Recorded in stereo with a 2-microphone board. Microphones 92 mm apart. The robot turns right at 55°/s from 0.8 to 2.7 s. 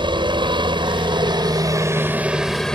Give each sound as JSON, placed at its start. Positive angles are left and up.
{"t": 0.0, "sound": "a helicopter", "azimuth_deg": -95}